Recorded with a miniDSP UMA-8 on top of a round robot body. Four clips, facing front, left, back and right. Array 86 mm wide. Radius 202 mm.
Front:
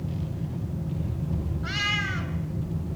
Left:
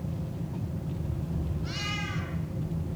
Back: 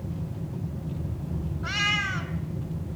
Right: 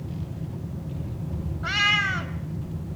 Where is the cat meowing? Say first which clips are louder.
Right 10 dB, back 2 dB; 110° right, 2 m.